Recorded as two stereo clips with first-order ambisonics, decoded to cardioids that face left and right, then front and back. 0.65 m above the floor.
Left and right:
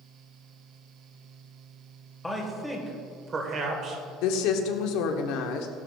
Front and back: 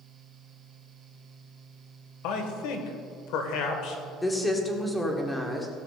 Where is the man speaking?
10° left, 2.0 m; by 4.0 s 40° right, 2.0 m.